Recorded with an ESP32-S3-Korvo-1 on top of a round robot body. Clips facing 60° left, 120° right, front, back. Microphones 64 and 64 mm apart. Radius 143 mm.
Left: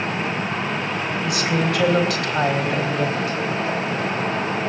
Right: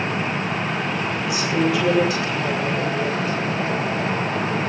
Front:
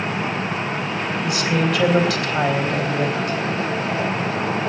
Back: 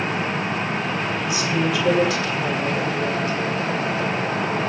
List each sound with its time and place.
1.2 s a woman speaking: 25° left, 4 m